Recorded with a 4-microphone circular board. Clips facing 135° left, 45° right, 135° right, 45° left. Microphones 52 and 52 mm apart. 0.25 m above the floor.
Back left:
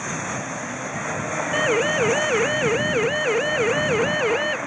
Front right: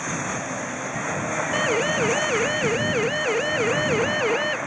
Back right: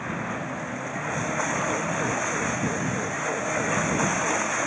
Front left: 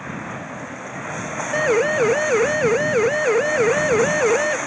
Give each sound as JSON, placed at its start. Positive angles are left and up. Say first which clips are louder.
{"t": 1.5, "sound": "a siren", "louder": "back left 3 dB, front left 9 dB", "azimuth_deg": 55}